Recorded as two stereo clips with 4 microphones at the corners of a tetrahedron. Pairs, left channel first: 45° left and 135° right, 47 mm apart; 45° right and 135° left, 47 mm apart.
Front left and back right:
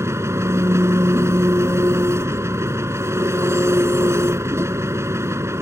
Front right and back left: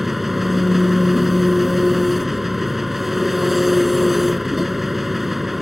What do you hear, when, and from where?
0.0 s an engine running: 140° right